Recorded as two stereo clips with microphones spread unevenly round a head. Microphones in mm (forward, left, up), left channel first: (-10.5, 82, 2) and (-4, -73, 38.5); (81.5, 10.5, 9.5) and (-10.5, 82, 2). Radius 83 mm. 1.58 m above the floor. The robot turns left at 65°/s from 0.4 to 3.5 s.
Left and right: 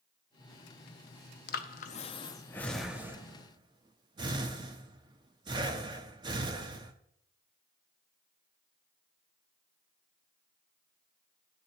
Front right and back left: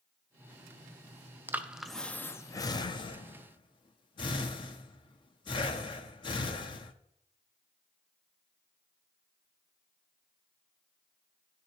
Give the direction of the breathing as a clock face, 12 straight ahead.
10 o'clock.